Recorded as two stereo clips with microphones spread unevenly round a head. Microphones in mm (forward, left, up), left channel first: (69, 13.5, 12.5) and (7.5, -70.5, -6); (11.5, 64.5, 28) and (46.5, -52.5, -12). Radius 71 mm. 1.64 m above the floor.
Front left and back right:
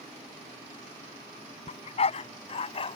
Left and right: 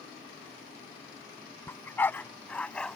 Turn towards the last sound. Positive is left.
turn(degrees=30)